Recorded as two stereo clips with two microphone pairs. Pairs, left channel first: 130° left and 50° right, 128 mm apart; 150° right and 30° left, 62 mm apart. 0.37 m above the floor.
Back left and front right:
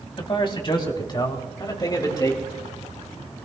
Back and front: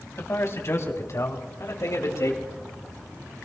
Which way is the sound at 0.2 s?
170° left.